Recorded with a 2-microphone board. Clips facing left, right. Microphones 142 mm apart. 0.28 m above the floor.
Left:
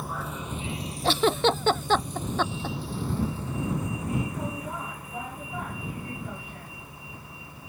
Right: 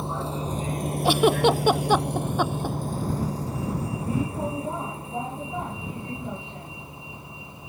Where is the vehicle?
25° right (ahead or behind); by 7.7 s 20° right (ahead or behind).